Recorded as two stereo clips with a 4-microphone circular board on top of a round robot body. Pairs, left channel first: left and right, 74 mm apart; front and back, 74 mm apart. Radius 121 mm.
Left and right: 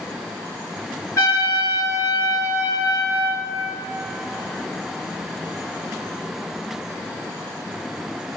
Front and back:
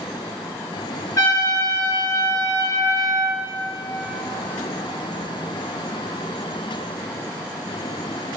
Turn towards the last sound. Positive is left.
turn(degrees=40)